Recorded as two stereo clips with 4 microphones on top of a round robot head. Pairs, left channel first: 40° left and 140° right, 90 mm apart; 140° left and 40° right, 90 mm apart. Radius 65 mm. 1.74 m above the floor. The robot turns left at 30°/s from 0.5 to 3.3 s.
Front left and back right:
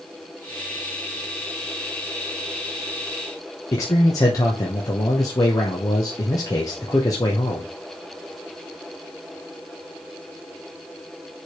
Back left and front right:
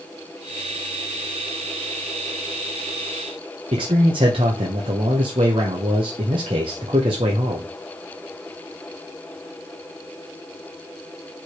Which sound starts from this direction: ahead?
A man speaking, at 3.7 s.